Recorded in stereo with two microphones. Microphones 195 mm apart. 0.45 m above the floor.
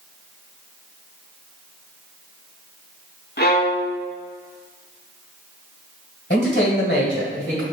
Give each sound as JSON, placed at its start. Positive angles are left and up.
{"t": 3.4, "sound": "a violin", "side_deg": 55, "distance_m": 0.6}
{"t": 6.3, "sound": "a man speaking", "side_deg": 50, "distance_m": 1.7}